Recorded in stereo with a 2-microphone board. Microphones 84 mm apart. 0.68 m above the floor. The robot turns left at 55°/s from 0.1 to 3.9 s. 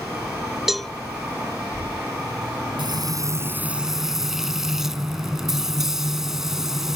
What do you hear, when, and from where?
0.7 s a cowbell: 5° right (ahead or behind); by 0.9 s 10° left (ahead or behind)
2.8 s frying: 115° right; by 7.0 s 175° right